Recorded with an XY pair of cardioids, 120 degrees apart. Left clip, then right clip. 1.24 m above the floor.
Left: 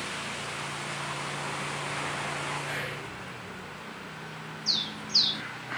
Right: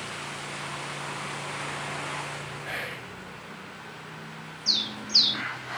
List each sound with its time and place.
2.6 s whispering: 25° right, 1.5 m
4.7 s a bird: 25° right, 0.7 m